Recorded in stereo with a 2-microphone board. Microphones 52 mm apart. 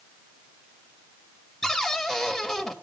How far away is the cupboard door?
About 1.7 m.